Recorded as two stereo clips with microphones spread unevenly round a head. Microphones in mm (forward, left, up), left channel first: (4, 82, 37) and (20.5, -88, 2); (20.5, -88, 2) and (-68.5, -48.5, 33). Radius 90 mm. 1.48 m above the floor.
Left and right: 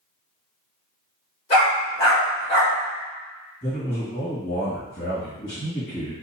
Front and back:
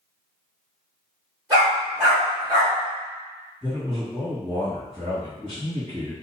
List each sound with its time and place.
1.5 s a dog barking: 130° left, 1.4 m
3.6 s a man speaking: 65° left, 1.9 m